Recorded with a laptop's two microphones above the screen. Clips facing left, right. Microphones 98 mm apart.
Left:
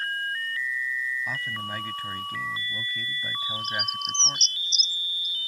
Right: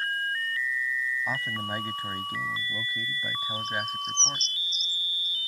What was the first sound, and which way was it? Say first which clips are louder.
A man speaking: right 1 dB; 25° right (ahead or behind).